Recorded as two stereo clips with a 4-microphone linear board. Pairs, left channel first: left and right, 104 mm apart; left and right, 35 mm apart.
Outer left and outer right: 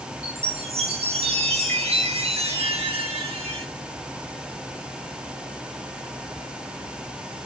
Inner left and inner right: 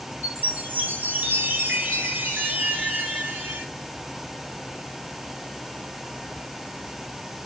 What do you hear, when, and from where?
0.2 s a chime: 70° right (ahead or behind), 2 m